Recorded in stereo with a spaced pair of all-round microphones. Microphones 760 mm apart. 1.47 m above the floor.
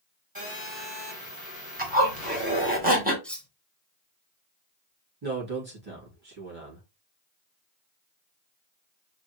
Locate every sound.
0.3 s a phone buzzing: 30° right (ahead or behind), 2.5 m
1.8 s a zipper: 10° right (ahead or behind), 1.3 m
3.2 s cutlery clinking: centre (ahead or behind), 0.5 m
5.2 s a man speaking: 30° right (ahead or behind), 2.5 m